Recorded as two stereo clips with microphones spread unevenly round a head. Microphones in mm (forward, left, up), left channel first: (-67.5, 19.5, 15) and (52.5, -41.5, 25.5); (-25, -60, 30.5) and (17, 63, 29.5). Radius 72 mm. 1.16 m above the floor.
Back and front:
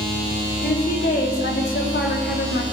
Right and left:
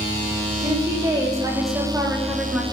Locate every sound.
0.6 s a woman speaking: 125° left, 3 m; by 2.6 s 160° left, 2.5 m